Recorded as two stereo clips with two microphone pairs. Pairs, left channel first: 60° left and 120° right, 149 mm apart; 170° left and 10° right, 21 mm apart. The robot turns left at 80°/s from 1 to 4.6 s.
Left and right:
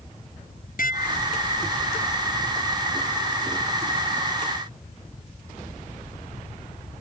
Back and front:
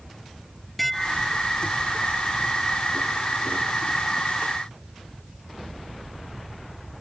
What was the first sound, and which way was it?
Dishes clattering, 85° left.